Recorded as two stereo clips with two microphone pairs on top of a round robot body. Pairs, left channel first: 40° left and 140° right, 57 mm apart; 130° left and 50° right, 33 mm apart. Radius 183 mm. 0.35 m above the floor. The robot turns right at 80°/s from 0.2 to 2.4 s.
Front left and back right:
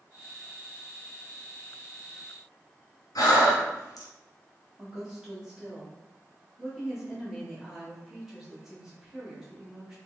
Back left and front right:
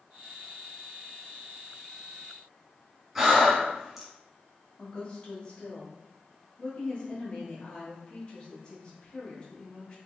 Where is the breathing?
30° left, 1.0 m.